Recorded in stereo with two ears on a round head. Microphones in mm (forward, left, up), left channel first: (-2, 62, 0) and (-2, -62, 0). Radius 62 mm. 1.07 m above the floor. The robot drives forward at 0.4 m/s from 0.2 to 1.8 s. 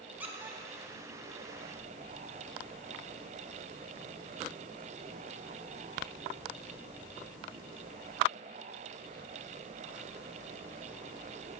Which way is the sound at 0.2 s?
15° right (ahead or behind).